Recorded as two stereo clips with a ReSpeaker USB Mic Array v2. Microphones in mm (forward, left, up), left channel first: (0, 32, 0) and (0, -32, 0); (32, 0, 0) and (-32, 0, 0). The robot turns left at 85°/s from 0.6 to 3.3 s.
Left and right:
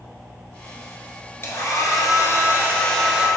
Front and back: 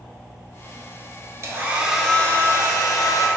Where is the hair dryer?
140° left, 0.8 m; by 3.3 s 20° right, 0.8 m.